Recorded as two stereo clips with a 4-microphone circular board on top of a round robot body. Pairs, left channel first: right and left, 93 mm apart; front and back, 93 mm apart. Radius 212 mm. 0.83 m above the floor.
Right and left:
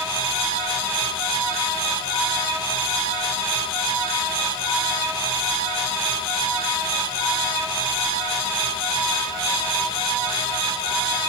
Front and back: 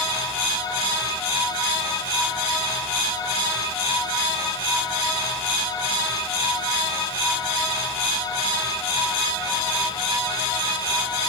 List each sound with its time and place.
Only background noise.